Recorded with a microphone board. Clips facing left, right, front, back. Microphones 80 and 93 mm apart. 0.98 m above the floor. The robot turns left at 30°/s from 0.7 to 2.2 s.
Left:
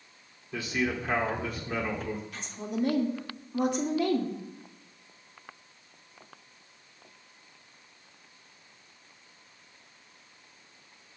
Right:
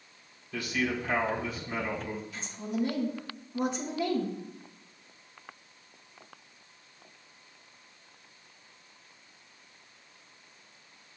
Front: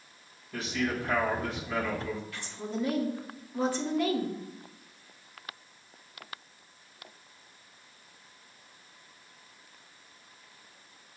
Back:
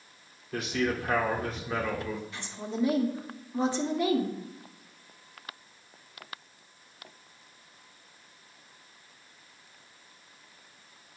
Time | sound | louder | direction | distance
0.5 | a man speaking | left 1 dB, back 2 dB | 155° left | 2.5 m
2.3 | a woman speaking | even, even | 115° left | 1.8 m